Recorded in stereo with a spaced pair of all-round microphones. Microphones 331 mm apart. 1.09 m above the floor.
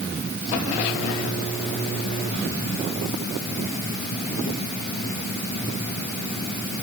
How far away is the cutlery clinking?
No cutlery clinking in this recording.